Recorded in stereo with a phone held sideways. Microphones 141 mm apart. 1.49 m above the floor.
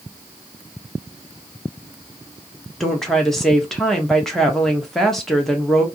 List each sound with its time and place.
2.8 s a woman speaking: 5° left (ahead or behind), 0.9 m